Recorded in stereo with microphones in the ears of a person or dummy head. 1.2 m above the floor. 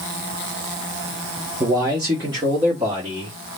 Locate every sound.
1.6 s a man speaking: 15° right (ahead or behind), 0.7 m; by 3.4 s 20° right (ahead or behind), 1.5 m